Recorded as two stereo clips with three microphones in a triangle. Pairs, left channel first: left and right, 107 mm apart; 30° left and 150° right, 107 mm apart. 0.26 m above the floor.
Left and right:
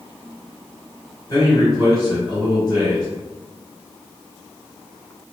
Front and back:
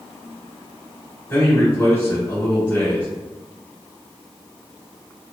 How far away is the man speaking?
About 1.9 m.